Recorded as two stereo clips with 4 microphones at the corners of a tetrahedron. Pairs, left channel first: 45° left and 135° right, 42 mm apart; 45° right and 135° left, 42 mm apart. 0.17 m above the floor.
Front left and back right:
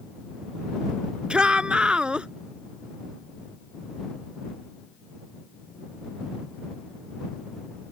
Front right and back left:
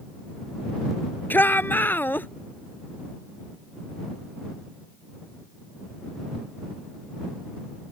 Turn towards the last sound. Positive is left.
turn(degrees=-70)